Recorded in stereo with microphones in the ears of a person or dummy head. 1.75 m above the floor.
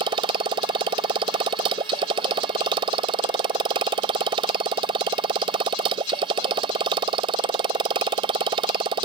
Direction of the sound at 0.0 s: 25° right (ahead or behind).